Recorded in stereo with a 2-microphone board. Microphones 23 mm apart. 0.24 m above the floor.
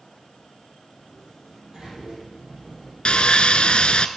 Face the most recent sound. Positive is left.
turn(degrees=50)  # may be behind; listen again after turning